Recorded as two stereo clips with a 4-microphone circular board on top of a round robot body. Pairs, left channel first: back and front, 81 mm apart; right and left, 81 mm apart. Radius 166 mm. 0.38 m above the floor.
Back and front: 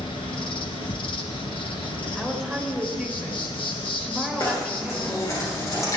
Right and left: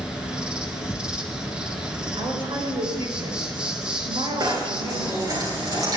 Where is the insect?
170° left, 1.6 m.